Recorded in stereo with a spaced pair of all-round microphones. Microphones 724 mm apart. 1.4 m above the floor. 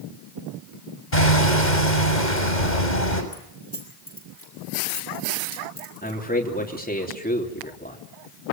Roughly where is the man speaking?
Centre.